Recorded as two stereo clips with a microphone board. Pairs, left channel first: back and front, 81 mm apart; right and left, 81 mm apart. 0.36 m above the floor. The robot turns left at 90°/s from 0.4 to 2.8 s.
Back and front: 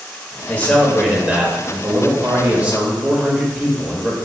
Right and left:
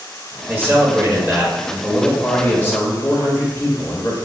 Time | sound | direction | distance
0.5 | a man speaking | 135° left | 1.1 m